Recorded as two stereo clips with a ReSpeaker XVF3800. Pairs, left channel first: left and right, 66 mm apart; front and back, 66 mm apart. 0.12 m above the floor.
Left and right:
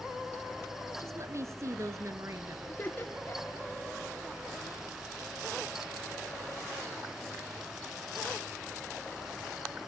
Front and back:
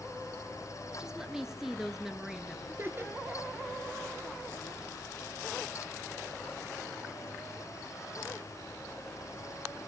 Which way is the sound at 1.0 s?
100° right.